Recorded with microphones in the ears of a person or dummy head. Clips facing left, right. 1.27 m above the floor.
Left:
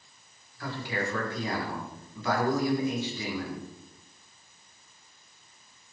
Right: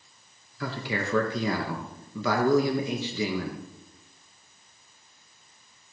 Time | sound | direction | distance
0.6 | a man speaking | 65° right (ahead or behind) | 1.6 m